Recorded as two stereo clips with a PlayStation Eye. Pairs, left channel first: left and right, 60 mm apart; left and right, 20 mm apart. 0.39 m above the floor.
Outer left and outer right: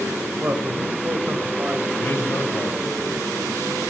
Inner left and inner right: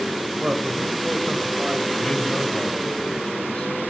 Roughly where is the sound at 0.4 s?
Right.